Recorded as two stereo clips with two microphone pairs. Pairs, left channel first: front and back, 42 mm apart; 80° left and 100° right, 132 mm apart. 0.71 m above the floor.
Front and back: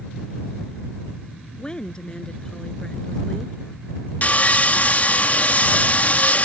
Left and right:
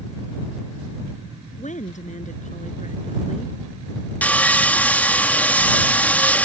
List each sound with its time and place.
1.6 s a woman speaking: 70° left
4.2 s sawing: 10° left